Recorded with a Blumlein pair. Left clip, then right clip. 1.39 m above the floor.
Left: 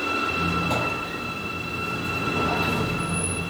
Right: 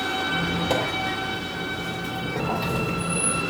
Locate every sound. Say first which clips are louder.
0.3 s a squeak: even; 10° right, 4 m